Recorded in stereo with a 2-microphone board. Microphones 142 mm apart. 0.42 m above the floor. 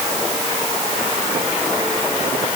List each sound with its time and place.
Only background noise.